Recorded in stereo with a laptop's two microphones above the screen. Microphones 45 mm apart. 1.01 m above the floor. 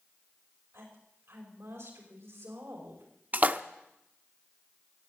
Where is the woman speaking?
70° right (ahead or behind), 5 m.